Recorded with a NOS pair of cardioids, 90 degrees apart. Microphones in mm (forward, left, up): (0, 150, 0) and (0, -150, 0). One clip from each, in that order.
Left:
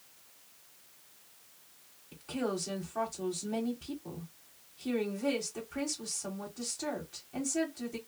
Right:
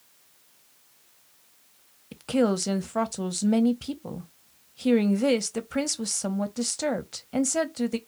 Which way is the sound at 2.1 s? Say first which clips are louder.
Right 11 dB; 65° right.